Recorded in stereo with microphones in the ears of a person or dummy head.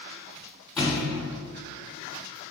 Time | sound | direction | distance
0.8 | a thud | centre (ahead or behind) | 1.9 m